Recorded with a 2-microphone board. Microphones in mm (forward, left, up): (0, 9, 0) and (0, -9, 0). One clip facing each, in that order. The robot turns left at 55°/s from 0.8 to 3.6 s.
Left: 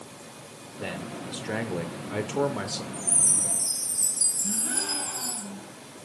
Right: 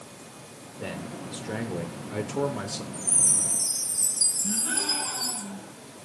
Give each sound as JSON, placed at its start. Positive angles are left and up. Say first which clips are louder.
{"t": 0.8, "sound": "a man speaking", "louder": "left 1 dB", "side_deg": 10, "distance_m": 0.8}
{"t": 2.9, "sound": "a chime", "louder": "right 1 dB", "azimuth_deg": 10, "distance_m": 3.0}
{"t": 4.4, "sound": "a gasp", "louder": "right 2 dB", "side_deg": -20, "distance_m": 3.0}